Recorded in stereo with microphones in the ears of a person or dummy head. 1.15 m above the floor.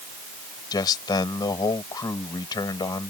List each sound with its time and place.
0.7 s a man speaking: 20° left (ahead or behind)